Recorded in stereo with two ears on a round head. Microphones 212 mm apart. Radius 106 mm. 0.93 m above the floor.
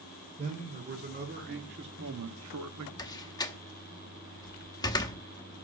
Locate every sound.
0.4 s a man speaking: 30° right (ahead or behind), 3 m; by 2.9 s 80° right, 1.2 m
3.0 s a door slam: 15° left (ahead or behind), 0.9 m